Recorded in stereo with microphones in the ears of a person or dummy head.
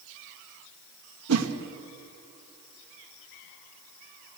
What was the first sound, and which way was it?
A whoosh, 85° right.